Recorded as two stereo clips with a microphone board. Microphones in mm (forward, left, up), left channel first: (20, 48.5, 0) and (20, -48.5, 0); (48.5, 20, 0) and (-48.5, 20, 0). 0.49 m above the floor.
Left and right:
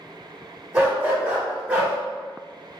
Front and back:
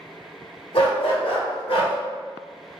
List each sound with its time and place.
0.7 s a dog barking: 20° right, 1.9 m; by 1.9 s 15° right, 1.3 m